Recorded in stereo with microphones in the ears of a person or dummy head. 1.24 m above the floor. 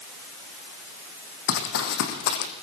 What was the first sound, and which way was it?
Running footsteps, 65° left (ahead or behind).